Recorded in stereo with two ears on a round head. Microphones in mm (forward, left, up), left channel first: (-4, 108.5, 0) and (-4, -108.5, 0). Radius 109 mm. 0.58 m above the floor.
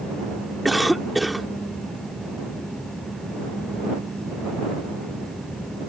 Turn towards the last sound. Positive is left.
turn(degrees=0)  # may be behind; listen again after turning